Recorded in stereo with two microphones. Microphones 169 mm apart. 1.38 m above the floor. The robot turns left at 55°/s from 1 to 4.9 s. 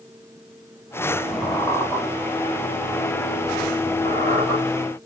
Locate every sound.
1.4 s a squeak: 155° right, 2.5 m; by 2.0 s 175° left, 2.5 m
4.0 s a squeak: 35° left (ahead or behind), 2 m; by 4.6 s 15° left (ahead or behind), 2 m